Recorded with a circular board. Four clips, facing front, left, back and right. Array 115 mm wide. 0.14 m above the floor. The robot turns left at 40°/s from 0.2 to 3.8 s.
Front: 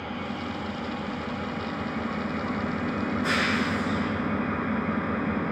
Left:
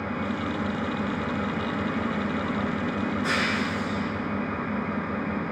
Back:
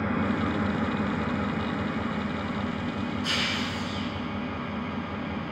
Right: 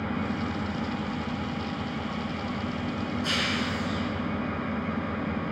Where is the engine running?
165° left, 1.7 m; by 5.5 s 20° left, 1.7 m.